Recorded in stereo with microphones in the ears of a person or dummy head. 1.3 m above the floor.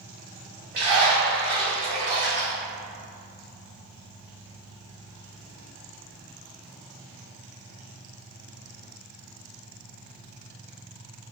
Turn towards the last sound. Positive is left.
turn(degrees=-40)  # may be behind; listen again after turning